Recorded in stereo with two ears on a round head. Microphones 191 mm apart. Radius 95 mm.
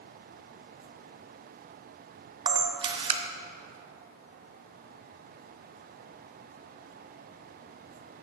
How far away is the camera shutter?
About 0.7 m.